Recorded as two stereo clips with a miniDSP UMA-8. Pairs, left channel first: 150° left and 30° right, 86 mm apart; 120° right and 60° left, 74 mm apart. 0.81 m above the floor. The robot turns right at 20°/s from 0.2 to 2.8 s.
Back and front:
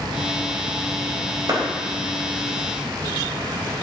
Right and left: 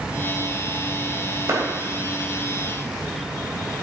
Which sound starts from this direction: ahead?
A clap, at 1.5 s.